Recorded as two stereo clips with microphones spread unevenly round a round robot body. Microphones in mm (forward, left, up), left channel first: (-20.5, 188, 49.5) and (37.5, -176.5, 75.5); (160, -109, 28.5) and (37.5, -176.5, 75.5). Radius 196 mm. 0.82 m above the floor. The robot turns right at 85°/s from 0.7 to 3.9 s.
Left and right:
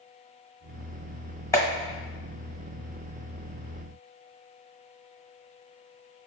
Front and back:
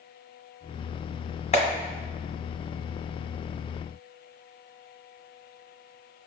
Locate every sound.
1.5 s a clap: 20° left, 1.3 m; by 1.7 s 30° left, 1.3 m